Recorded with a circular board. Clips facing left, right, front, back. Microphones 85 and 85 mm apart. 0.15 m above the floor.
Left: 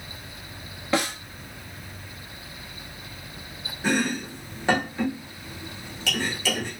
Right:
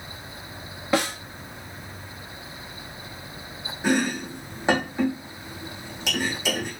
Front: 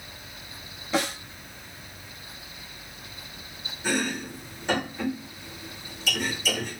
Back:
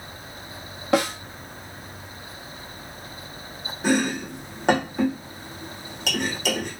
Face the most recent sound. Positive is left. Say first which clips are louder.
# right 2 dB, back 6 dB
turn(degrees=-160)